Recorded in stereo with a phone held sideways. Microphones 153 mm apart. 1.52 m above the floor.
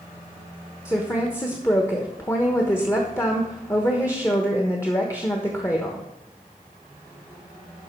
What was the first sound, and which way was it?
A woman speaking, 20° left (ahead or behind).